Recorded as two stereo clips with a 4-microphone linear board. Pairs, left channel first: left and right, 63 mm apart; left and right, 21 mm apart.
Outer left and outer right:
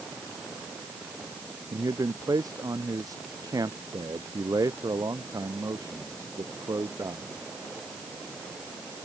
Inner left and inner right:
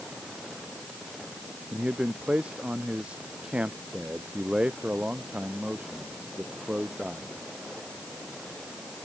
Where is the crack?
No crack in this recording.